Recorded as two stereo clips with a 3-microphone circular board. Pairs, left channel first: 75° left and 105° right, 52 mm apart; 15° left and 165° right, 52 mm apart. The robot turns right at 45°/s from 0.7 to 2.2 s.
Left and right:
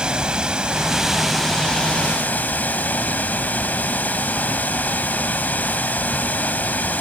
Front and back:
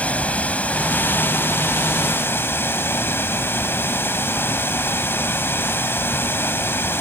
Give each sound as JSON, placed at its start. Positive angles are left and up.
{"t": 0.0, "sound": "running water", "azimuth_deg": -35, "distance_m": 1.1}